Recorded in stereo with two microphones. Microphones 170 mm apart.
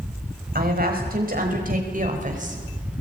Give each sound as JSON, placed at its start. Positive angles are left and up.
{"t": 0.6, "sound": "a woman speaking", "side_deg": -55, "distance_m": 5.0}